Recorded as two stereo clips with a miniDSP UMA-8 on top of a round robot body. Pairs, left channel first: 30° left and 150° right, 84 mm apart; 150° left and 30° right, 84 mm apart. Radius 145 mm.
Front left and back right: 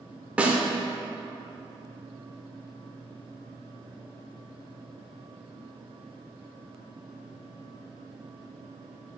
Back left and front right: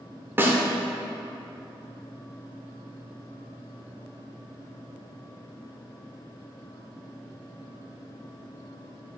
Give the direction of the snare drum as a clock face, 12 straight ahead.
3 o'clock.